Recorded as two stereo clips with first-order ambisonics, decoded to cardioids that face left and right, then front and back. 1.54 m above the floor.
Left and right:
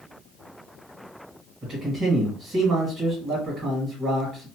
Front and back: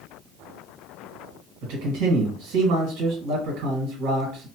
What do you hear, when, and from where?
1.6 s a man speaking: 160° right, 1.8 m